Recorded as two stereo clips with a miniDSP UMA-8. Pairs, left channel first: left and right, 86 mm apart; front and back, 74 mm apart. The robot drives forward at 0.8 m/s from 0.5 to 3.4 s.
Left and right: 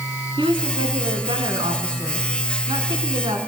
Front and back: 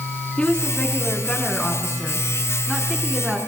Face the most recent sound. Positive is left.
turn(degrees=-95)